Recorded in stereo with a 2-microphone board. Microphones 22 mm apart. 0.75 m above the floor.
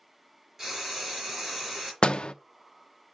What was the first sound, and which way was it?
Frying, 15° right (ahead or behind).